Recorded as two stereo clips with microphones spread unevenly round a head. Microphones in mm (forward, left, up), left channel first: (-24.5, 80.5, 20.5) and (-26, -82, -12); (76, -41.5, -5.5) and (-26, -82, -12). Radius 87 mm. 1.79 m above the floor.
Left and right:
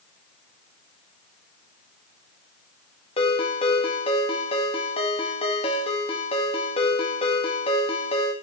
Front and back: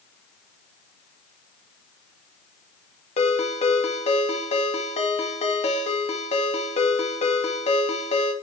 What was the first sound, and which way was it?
A ringtone, 40° left.